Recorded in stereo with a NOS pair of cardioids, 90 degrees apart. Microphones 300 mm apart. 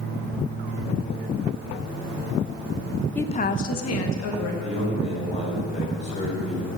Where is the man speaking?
20° left, 4.5 m.